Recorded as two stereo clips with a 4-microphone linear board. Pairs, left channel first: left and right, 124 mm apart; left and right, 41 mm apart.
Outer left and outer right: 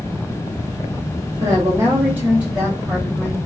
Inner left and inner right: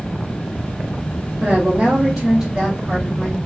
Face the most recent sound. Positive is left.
turn(degrees=0)  # may be behind; listen again after turning